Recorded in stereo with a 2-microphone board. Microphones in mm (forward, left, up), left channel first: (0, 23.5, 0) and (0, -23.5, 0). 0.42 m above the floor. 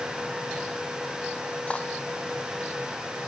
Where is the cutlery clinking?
25° left (ahead or behind).